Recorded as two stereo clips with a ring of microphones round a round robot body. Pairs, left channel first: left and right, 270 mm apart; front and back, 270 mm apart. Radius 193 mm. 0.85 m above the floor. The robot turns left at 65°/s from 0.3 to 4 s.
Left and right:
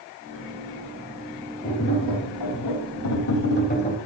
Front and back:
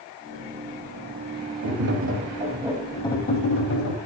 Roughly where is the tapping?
Behind.